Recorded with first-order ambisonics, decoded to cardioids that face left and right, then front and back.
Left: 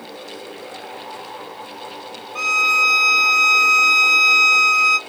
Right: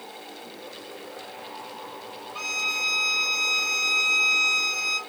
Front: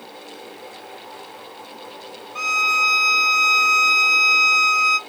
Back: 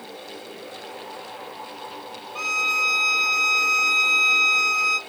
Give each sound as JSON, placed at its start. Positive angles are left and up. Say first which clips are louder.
{"t": 2.4, "sound": "a violin", "louder": "left 11 dB, front 4 dB", "azimuth_deg": 70, "distance_m": 0.9}